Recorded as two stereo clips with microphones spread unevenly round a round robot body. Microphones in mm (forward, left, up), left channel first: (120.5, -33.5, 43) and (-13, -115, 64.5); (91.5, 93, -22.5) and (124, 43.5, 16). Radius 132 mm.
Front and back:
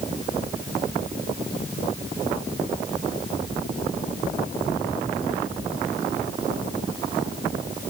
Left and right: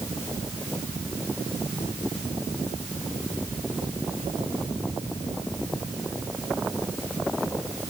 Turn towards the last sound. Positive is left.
No sound to turn to.